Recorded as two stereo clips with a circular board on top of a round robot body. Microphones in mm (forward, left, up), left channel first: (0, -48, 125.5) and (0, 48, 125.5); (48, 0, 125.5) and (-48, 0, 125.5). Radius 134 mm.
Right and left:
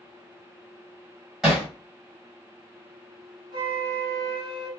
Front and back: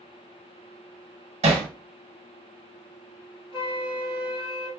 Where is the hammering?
175° left, 1.2 m.